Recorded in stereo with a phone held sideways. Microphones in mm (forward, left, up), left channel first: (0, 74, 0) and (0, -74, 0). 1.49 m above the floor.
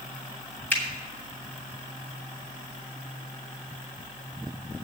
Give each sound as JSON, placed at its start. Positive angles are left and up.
{"t": 0.7, "sound": "a finger snap", "side_deg": 15, "distance_m": 2.5}